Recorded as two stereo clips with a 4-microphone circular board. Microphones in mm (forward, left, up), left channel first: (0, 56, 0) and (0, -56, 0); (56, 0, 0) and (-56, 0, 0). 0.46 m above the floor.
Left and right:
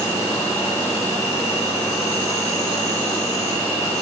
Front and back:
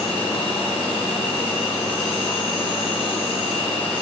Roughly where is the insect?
Ahead left.